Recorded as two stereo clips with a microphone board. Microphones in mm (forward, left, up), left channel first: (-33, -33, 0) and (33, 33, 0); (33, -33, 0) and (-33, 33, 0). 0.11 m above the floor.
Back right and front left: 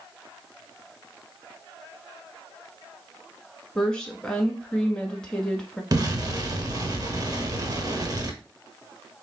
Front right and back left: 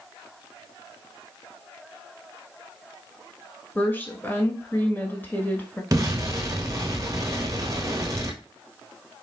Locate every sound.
3.8 s a woman speaking: 65° right, 1.2 m
5.9 s an explosion: 85° left, 1.1 m